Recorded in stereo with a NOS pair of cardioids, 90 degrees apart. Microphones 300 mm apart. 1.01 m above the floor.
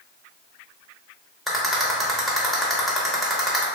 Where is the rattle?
Straight ahead, 0.9 m.